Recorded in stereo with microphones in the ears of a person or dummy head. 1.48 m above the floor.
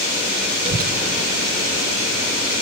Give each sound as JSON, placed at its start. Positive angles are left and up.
{"t": 0.7, "sound": "a child speaking", "side_deg": -35, "distance_m": 0.6}